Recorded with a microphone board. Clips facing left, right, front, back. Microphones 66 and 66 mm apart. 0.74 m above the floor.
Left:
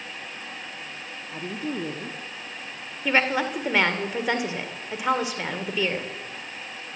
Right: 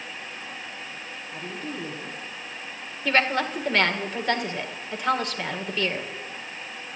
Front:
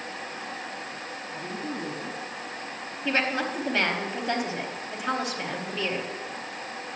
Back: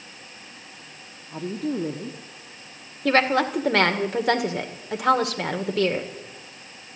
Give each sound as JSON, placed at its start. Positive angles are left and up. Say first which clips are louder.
{"t": 1.3, "sound": "a woman speaking", "louder": "left 4 dB, back 8 dB", "azimuth_deg": 155, "distance_m": 1.2}
{"t": 3.0, "sound": "a woman speaking", "louder": "even, back 7 dB", "azimuth_deg": 170, "distance_m": 1.9}